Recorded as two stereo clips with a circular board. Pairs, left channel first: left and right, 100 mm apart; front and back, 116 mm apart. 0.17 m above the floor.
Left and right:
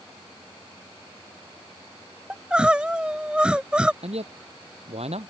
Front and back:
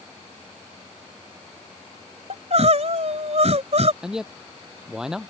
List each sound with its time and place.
2.3 s crying: 170° right
4.0 s a man speaking: 95° right